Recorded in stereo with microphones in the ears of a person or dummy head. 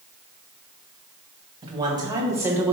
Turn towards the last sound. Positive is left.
turn(degrees=-10)  # may be behind; listen again after turning